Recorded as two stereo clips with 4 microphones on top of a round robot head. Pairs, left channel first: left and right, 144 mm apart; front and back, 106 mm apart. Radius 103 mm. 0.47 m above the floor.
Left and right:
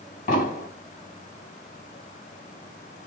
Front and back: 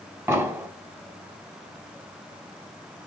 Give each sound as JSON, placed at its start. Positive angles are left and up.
{"t": 0.3, "sound": "an explosion", "azimuth_deg": 120, "distance_m": 3.0}